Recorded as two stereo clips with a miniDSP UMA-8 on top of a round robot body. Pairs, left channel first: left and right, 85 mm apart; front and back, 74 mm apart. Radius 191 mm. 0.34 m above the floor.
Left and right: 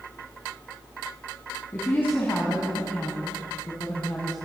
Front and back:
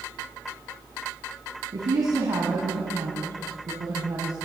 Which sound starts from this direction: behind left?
A woman speaking, at 1.7 s.